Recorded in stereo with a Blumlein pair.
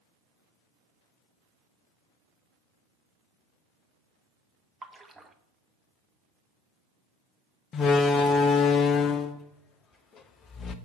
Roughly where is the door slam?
Ahead left.